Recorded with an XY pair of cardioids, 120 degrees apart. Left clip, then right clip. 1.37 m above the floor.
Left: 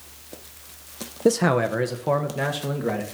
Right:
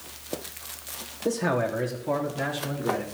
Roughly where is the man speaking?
Ahead left.